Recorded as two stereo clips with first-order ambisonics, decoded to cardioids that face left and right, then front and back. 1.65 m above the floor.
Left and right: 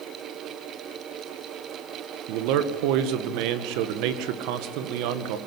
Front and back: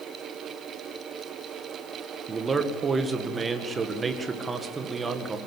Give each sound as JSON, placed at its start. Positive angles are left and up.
{"t": 2.3, "sound": "a man speaking", "azimuth_deg": -105, "distance_m": 1.8}